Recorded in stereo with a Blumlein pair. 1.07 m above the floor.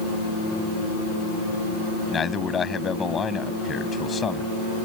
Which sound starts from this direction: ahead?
A man speaking, at 2.1 s.